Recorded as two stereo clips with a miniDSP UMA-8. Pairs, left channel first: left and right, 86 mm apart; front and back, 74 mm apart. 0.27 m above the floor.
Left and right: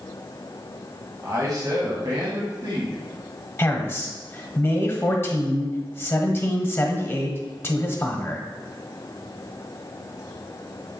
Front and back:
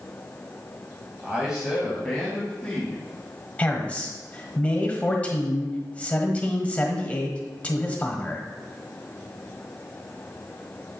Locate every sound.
1.2 s a man speaking: 110° right, 1.3 m; by 3.0 s 75° right, 2.0 m
3.6 s a man speaking: 55° left, 1.1 m